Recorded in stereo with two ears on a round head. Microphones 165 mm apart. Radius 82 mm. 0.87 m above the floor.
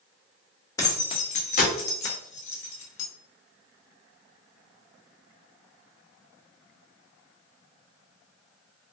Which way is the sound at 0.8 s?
15° left (ahead or behind).